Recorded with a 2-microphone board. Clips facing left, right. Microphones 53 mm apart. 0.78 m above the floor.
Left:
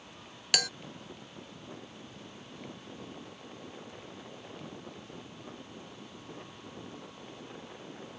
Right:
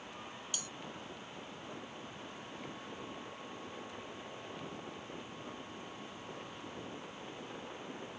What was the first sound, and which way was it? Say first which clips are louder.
A bell: left 16 dB; 65° left (ahead or behind).